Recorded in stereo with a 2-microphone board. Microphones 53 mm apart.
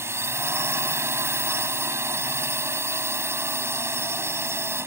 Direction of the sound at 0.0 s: 55° right (ahead or behind).